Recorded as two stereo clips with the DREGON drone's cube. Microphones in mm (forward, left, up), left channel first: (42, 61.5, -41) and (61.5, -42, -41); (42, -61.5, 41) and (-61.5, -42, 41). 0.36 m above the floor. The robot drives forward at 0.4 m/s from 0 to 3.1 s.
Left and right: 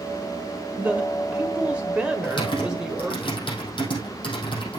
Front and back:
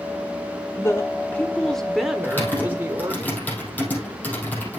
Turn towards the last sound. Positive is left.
turn(degrees=65)